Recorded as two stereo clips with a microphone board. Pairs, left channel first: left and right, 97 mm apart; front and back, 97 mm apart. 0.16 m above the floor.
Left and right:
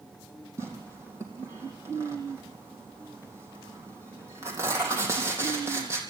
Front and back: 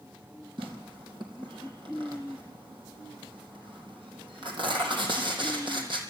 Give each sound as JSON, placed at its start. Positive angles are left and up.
{"t": 0.6, "sound": "tearing paper", "azimuth_deg": -150, "distance_m": 4.0}